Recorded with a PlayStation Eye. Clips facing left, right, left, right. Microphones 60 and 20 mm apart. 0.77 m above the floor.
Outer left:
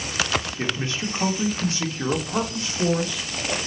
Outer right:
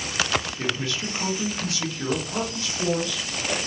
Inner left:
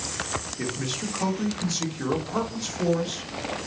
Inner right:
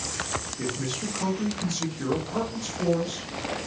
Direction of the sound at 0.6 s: 30° left (ahead or behind).